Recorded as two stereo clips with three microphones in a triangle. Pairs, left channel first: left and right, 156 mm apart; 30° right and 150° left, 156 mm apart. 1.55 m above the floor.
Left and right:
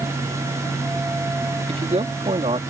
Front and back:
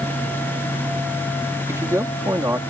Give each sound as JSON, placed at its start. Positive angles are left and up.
{"t": 1.7, "sound": "a man speaking", "azimuth_deg": -135}